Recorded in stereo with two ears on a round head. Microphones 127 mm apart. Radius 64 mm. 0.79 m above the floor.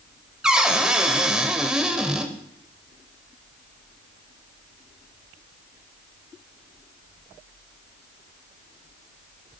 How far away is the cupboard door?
About 1.1 m.